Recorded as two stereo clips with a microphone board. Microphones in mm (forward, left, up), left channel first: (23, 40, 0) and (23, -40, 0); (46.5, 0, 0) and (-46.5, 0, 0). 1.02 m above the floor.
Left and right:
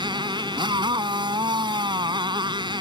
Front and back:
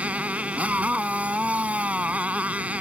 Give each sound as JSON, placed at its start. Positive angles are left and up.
{"t": 0.0, "sound": "a motorcycle", "azimuth_deg": -105}